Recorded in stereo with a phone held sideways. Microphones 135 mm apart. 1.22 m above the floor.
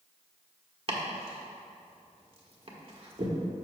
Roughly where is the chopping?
Right.